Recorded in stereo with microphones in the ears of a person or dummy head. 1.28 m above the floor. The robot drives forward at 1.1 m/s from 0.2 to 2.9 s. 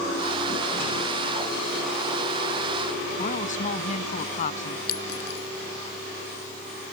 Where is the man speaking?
45° left (ahead or behind).